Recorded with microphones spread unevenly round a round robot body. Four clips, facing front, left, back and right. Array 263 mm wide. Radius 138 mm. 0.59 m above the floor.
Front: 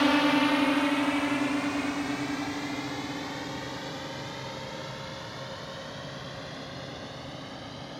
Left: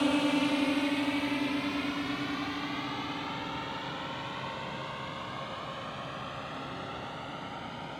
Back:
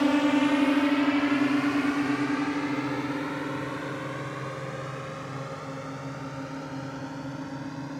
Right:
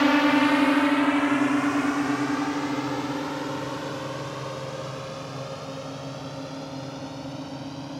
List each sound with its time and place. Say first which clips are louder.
0.0 s a drone: right 8 dB, back 1 dB; 120° right; by 8.0 s 150° right